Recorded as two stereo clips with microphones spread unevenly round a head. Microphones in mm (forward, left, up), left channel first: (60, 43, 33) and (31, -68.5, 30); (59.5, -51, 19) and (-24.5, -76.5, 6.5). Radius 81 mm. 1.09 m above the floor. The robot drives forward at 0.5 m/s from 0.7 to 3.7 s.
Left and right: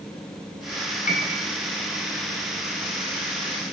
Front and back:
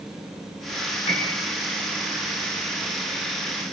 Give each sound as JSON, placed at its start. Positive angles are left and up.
{"t": 1.1, "sound": "a piano", "azimuth_deg": 65, "distance_m": 8.5}